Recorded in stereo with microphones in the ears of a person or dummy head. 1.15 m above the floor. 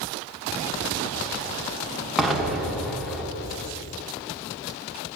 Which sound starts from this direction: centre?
An explosion, at 2.2 s.